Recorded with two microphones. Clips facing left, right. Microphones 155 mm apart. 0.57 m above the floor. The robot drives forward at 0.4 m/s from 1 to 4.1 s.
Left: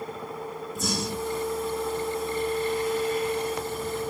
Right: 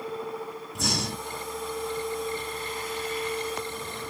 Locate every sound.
0.8 s breathing: 70° right (ahead or behind), 0.5 m; by 1.4 s 55° right (ahead or behind), 0.6 m